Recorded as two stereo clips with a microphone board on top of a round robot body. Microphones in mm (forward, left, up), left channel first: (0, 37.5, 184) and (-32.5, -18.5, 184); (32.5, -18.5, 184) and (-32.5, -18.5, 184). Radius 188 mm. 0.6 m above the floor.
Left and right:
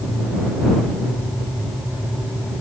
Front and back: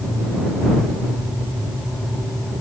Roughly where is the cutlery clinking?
I don't hear cutlery clinking.